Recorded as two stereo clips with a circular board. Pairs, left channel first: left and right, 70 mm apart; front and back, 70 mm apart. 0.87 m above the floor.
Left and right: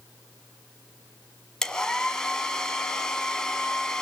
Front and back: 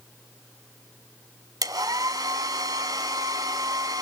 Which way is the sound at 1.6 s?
170° left.